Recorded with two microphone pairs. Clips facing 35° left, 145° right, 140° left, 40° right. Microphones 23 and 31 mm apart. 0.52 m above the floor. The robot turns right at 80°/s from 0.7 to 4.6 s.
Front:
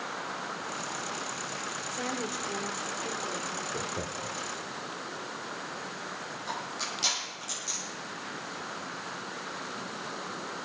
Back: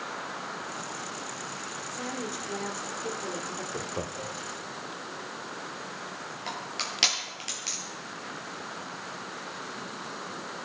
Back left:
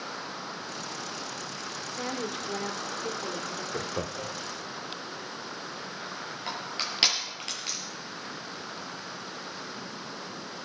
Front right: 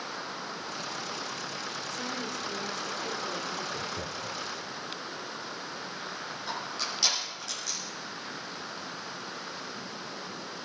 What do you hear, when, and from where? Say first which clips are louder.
1.9 s a woman speaking: front 1 dB, back left 4 dB; 80° left, 1.6 m; by 3.6 s 140° right, 1.6 m
3.7 s laughter: even, back left 2 dB; 130° left, 0.8 m; by 4.4 s 175° right, 0.8 m
6.5 s crushing: back 2 dB, back left 1 dB; straight behind, 6.5 m